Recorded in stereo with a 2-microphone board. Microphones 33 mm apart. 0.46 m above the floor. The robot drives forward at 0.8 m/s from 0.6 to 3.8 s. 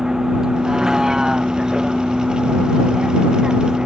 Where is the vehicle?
20° right (ahead or behind); by 3.9 s 25° right (ahead or behind).